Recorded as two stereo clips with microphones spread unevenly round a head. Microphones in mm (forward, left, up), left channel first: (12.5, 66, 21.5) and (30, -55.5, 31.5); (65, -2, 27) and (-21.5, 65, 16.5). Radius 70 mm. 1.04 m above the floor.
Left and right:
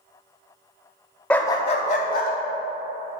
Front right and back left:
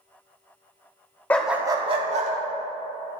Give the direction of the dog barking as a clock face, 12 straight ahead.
12 o'clock.